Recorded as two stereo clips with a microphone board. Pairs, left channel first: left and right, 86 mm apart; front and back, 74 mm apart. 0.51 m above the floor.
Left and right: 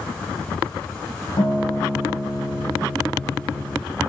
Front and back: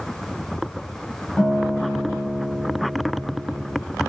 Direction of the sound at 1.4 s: 85° left.